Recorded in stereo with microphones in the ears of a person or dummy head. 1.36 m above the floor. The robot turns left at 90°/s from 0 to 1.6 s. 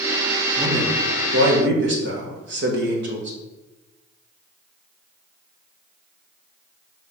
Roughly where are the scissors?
I don't hear scissors.